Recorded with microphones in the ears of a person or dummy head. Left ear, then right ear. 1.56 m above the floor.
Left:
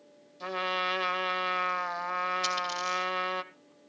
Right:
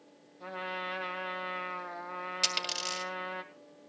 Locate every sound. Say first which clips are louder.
0.4 s a trumpet: left 7 dB; 80° left, 1.1 m
2.4 s a dropped coin: left 1 dB; 40° right (ahead or behind), 2 m